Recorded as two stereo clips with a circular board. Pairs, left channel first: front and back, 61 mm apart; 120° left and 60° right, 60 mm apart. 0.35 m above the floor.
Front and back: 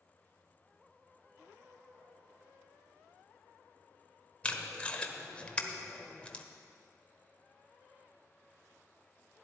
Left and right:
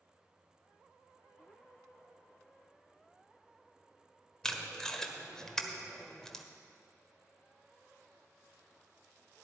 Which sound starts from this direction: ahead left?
Tape being pulled, at 4.4 s.